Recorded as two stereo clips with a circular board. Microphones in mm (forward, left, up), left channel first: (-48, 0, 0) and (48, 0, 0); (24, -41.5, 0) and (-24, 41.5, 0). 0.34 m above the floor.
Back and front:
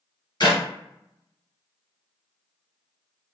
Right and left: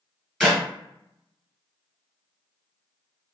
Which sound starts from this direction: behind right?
A clap, at 0.4 s.